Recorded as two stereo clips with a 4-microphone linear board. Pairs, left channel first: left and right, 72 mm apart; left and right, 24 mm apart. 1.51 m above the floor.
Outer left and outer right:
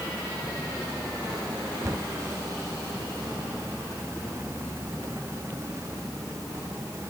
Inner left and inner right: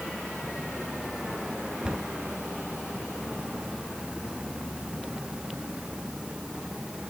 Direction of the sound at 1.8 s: 45° right (ahead or behind).